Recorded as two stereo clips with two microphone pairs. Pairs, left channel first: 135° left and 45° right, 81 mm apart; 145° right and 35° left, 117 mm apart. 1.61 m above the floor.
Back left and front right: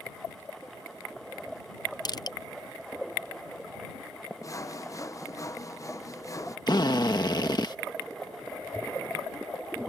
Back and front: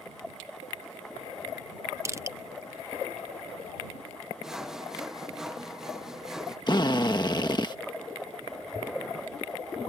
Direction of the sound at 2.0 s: 95° left.